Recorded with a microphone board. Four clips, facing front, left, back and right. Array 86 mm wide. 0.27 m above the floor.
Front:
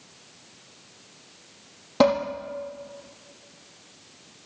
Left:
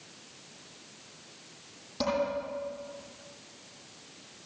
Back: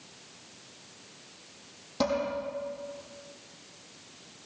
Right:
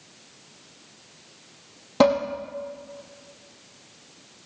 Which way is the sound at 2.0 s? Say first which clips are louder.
Right 11 dB, front 9 dB; 50° right.